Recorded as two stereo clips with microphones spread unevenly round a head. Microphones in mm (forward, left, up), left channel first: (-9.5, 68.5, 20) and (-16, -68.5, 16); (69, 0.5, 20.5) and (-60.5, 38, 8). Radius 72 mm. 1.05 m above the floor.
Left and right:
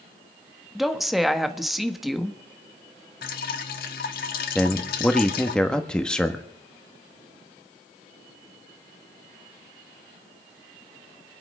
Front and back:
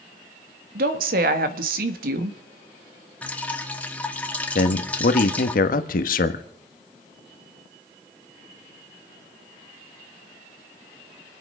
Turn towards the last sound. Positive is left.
turn(degrees=5)